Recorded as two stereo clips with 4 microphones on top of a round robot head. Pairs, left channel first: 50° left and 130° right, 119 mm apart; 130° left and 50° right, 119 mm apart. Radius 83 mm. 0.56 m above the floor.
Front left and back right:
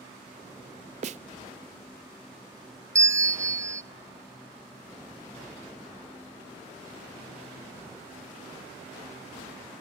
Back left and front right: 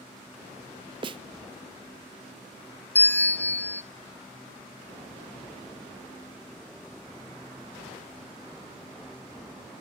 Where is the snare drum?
100° right, 0.7 m.